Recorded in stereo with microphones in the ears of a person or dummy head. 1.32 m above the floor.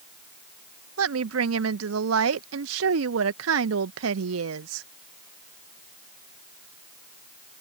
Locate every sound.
1.0 s a woman speaking: 80° right